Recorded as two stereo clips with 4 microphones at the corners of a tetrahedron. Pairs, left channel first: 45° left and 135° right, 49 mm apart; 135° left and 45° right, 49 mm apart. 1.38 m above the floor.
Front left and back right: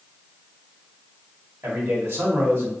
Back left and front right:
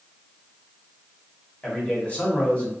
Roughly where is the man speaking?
Behind.